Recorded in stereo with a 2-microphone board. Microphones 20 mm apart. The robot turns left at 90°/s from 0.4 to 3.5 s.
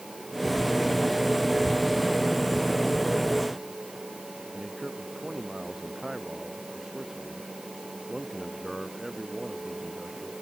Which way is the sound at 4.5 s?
10° right (ahead or behind).